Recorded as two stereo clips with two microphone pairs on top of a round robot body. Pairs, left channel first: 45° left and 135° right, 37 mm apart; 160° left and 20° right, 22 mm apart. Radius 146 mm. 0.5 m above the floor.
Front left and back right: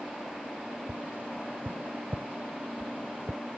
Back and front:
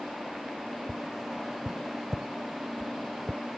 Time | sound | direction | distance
0.9 | tapping | 105° right | ?